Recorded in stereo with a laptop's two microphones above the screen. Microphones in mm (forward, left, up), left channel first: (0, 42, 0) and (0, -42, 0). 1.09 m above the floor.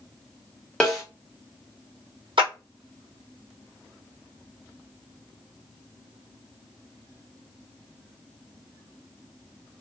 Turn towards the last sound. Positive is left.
turn(degrees=-80)